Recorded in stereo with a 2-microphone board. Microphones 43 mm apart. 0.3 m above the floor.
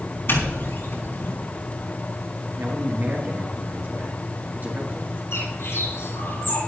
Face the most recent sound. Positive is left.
turn(degrees=80)